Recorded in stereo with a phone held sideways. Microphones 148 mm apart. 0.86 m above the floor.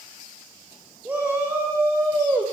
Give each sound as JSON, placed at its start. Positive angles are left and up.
{"t": 1.1, "sound": "a shout", "side_deg": -15, "distance_m": 2.5}